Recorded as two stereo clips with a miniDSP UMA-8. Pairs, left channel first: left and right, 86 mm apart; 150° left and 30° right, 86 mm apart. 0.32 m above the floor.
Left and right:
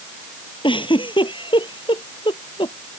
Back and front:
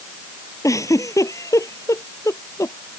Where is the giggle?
100° left.